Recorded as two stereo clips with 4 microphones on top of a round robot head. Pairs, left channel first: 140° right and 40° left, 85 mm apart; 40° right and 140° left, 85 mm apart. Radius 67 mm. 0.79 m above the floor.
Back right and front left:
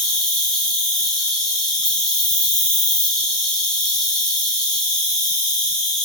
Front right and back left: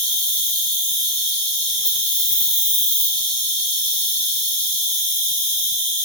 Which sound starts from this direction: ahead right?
An insect, at 0.0 s.